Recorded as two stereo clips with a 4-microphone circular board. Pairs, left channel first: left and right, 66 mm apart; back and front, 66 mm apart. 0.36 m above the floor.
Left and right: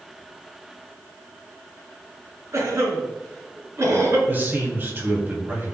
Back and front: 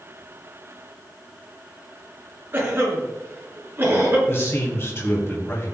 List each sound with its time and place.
2.5 s a cough: 50° right, 4 m
4.3 s a man speaking: 140° right, 2.5 m